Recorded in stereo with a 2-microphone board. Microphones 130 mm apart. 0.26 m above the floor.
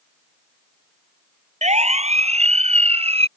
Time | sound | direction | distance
1.6 | a siren | 60° right (ahead or behind) | ?